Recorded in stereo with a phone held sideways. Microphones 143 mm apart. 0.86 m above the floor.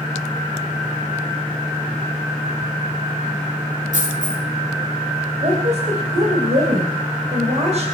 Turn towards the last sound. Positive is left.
turn(degrees=-50)  # may be behind; listen again after turning